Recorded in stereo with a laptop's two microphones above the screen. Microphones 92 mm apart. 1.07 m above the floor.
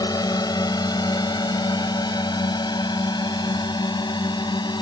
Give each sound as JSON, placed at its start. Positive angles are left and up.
{"t": 0.0, "sound": "a drone", "side_deg": 45}